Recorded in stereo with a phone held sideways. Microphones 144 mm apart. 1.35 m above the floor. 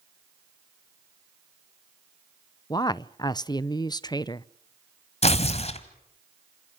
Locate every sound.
2.7 s a woman speaking: 30° left (ahead or behind), 0.6 m
5.2 s tearing paper: 45° left (ahead or behind), 1.6 m